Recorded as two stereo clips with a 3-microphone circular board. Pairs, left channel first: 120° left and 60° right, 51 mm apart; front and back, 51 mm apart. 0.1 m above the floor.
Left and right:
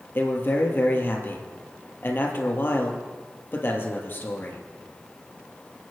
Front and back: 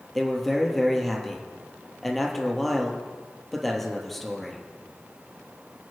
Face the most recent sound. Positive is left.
turn(degrees=85)